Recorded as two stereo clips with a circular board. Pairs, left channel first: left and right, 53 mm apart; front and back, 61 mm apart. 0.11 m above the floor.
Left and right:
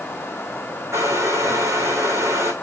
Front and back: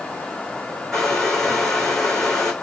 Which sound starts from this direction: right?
A hair dryer, at 0.9 s.